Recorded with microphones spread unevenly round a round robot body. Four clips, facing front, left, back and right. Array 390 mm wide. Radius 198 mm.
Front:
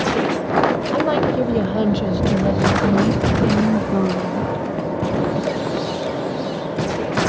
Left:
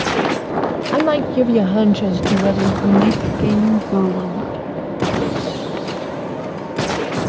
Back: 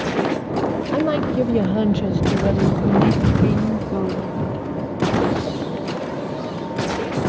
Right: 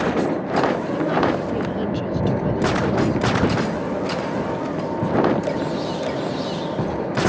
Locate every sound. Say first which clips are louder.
0.9 s a woman speaking: left 4 dB, front 1 dB; 90° left; by 4.7 s 60° left